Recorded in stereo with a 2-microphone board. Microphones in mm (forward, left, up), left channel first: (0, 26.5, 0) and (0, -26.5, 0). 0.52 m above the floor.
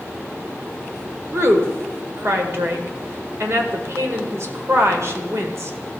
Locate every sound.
1.3 s a woman speaking: 55° right (ahead or behind), 1.6 m